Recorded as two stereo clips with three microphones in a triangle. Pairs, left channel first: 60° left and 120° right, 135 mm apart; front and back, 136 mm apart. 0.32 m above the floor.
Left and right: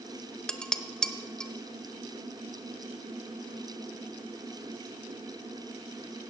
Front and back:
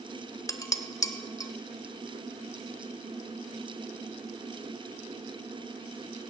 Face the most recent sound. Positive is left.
turn(degrees=-20)